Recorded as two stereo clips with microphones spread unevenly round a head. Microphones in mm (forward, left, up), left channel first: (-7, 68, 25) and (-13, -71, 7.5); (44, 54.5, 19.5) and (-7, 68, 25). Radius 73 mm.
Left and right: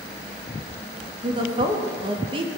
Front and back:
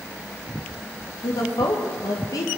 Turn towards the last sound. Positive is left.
turn(degrees=-35)